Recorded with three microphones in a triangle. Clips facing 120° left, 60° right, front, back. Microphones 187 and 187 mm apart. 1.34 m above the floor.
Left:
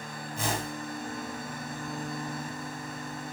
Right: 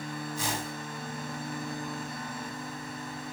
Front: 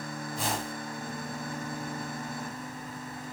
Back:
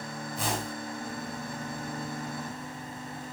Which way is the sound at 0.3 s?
90° left.